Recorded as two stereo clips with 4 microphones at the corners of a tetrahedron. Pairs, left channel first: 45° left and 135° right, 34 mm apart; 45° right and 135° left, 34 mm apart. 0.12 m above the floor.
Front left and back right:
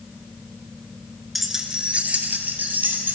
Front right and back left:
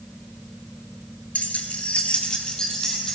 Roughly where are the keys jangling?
Ahead right.